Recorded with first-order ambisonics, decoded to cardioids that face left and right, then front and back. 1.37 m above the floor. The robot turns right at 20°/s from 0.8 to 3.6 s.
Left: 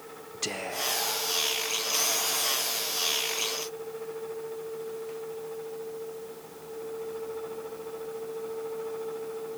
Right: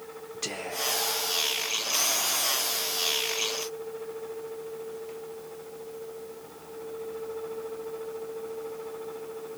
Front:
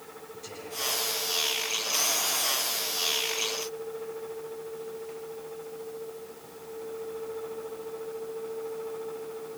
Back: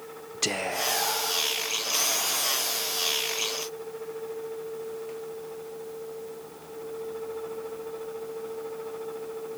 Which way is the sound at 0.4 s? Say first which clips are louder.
Even, back 7 dB; 175° left.